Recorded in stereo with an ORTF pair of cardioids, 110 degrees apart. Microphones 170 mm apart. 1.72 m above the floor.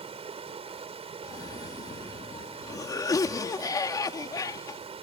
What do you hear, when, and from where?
0.0 s running water: 35° right
1.2 s a cough: 20° left